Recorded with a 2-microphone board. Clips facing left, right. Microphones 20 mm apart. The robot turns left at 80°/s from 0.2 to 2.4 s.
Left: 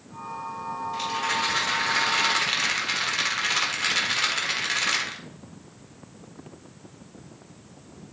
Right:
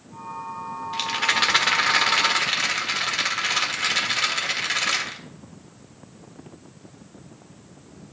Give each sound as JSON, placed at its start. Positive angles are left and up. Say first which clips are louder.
{"t": 0.9, "sound": "a rattle", "louder": "right 5 dB", "azimuth_deg": -55, "distance_m": 1.4}